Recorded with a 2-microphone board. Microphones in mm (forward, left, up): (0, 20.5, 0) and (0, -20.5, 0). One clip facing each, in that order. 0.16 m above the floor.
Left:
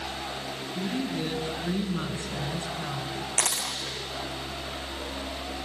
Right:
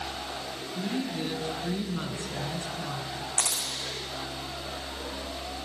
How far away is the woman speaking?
About 1.4 m.